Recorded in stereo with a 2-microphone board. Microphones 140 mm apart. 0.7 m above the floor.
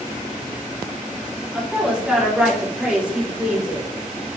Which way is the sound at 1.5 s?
10° right (ahead or behind).